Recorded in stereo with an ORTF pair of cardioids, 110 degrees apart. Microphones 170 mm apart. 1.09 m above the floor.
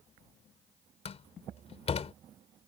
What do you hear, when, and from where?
1.1 s a door slam: 35° left